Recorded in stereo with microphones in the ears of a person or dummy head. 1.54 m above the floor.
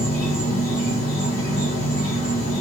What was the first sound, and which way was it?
An insect, 50° left (ahead or behind).